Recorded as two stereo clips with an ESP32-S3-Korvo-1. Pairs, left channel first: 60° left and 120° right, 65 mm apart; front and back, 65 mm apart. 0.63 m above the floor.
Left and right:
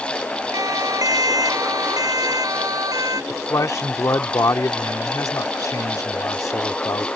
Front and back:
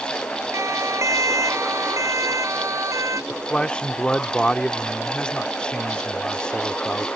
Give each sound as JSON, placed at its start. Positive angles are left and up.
{"t": 0.5, "sound": "a siren", "azimuth_deg": -145}
{"t": 3.3, "sound": "a man speaking", "azimuth_deg": 70}